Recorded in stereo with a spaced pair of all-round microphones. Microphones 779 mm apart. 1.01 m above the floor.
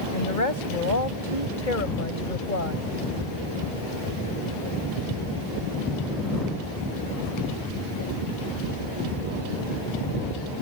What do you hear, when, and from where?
0.1 s a woman speaking: 75° left (ahead or behind); by 2.9 s 80° left